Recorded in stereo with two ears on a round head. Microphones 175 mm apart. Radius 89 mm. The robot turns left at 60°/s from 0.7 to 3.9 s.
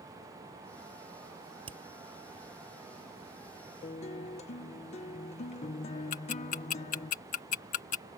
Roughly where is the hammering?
Right.